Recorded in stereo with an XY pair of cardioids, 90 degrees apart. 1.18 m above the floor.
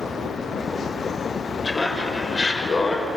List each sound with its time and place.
1.6 s laughter: 35° left, 6.5 m